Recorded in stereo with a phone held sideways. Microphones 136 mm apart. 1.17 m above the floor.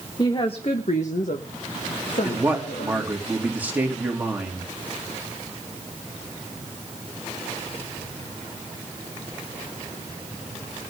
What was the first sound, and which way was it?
A woman speaking, 30° left (ahead or behind).